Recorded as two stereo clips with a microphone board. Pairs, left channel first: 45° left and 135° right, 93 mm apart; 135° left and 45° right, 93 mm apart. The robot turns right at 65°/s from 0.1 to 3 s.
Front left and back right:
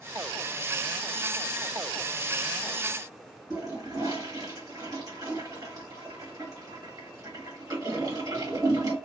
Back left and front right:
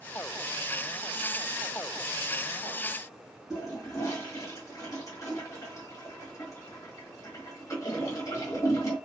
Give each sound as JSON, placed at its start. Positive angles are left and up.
{"t": 3.5, "sound": "a toilet flushing", "azimuth_deg": 180, "distance_m": 2.0}